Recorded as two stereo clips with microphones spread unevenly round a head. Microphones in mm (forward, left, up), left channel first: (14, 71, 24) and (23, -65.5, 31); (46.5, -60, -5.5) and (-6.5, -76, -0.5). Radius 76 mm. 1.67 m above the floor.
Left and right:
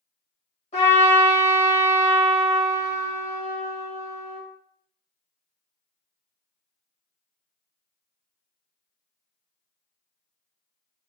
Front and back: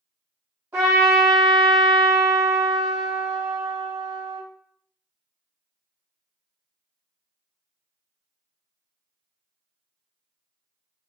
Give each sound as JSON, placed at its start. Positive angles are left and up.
{"t": 0.7, "sound": "a trumpet", "azimuth_deg": 135, "distance_m": 1.4}